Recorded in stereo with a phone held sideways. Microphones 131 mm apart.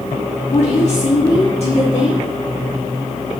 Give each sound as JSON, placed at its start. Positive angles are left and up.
{"t": 0.5, "sound": "a woman speaking", "side_deg": 55, "distance_m": 2.5}